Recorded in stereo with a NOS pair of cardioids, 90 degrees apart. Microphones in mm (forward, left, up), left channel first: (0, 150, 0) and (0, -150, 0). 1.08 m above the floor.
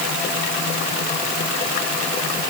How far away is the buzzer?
I don't hear a buzzer.